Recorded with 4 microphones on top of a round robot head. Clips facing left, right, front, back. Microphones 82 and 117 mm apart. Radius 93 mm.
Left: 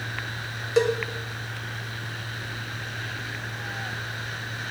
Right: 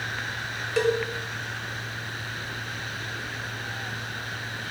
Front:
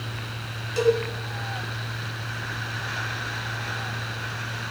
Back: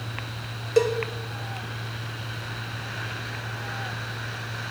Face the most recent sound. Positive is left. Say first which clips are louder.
# left 2 dB, even
turn(degrees=160)